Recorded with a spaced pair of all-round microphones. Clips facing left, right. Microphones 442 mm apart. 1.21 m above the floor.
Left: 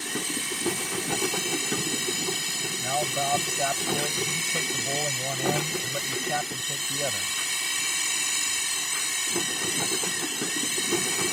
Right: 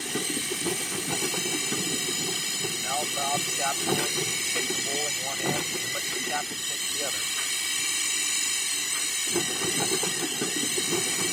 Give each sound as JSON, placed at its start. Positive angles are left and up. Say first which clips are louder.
{"t": 0.0, "sound": "a machine running", "louder": "right 2 dB", "side_deg": 70}
{"t": 2.8, "sound": "a man speaking", "louder": "left 3 dB", "side_deg": 55}